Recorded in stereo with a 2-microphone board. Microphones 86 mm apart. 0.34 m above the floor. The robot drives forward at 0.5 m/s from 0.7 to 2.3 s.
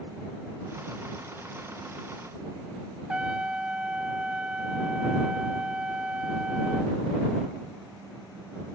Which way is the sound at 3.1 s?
10° right (ahead or behind).